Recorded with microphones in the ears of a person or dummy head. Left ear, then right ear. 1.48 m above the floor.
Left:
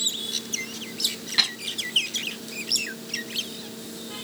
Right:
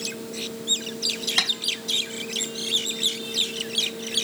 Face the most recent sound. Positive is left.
turn(degrees=-35)  # may be behind; listen again after turning